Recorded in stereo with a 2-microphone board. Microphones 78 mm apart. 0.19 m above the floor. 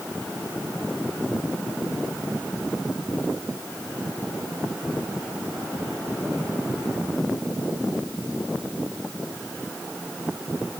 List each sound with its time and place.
Only background noise.